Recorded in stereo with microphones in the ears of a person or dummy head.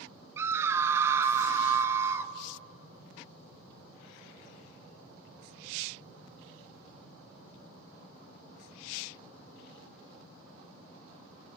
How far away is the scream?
About 1.1 m.